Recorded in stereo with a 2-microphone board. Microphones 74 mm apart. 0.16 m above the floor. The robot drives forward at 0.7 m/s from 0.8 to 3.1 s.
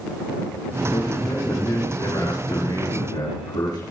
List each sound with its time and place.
0.9 s a man speaking: 75° left (ahead or behind), 7.5 m; by 3.8 s 65° left (ahead or behind), 8 m